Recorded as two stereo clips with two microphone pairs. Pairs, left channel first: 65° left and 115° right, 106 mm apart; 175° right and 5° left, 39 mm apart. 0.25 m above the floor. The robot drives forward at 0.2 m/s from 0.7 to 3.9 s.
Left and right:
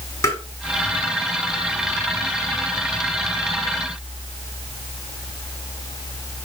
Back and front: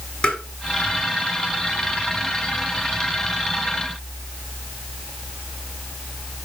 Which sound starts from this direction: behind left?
Tapping, at 0.2 s.